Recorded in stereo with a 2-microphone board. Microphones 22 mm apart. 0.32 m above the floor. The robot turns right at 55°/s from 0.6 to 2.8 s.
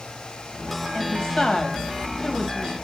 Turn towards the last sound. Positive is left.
turn(degrees=145)